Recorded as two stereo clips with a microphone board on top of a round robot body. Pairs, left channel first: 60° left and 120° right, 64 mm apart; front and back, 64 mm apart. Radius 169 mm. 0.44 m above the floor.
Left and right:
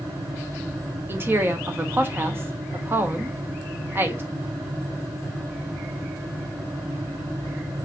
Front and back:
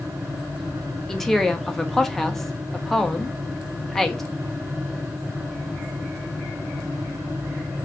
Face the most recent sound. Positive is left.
turn(degrees=-85)